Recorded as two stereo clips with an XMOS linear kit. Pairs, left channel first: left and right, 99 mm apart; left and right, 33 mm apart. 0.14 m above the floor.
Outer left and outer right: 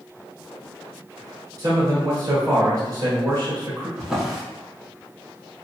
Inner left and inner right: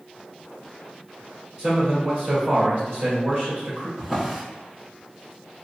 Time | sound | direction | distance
1.6 | a man speaking | 35° right (ahead or behind) | 1.6 m
4.0 | a drawer | 5° right (ahead or behind) | 0.8 m